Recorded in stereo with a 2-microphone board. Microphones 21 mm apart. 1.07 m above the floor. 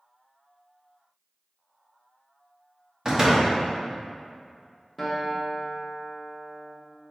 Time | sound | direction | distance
3.0 | a door slam | 25° right (ahead or behind) | 0.9 m
5.0 | a guitar | centre (ahead or behind) | 0.9 m